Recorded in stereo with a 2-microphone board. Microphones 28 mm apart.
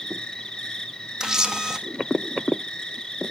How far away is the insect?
About 0.9 m.